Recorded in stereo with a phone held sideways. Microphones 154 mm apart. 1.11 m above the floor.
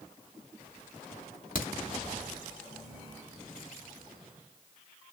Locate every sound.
1.6 s a crack: 65° left (ahead or behind), 3 m